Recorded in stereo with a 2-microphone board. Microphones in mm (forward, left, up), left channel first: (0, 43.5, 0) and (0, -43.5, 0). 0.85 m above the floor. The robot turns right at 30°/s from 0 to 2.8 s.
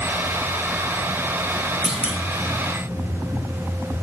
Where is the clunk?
10° right (ahead or behind), 1.0 m; by 2.2 s 20° right (ahead or behind), 1.0 m.